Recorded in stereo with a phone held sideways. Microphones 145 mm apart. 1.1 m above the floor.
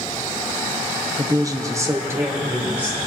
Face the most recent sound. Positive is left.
turn(degrees=-10)  # may be behind; listen again after turning